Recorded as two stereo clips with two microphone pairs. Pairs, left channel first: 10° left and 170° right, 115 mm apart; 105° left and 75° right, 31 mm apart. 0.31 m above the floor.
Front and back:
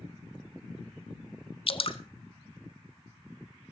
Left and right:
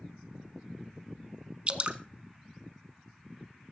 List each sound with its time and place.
1.7 s dripping: 25° right, 0.9 m